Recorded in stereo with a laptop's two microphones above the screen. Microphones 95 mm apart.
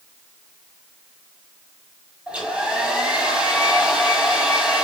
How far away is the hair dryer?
About 2 m.